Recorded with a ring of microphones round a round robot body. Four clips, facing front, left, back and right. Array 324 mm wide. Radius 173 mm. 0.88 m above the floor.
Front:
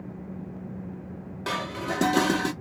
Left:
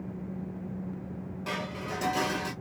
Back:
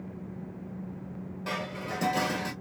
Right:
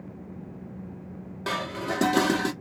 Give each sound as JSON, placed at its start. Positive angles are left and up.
{"t": 1.5, "sound": "dishes clattering", "azimuth_deg": -45, "distance_m": 1.4}